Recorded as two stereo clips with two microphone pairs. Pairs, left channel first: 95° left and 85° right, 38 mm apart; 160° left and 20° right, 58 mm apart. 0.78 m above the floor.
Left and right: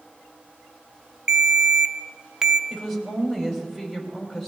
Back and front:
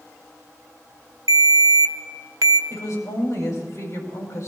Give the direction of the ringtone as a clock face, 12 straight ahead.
1 o'clock.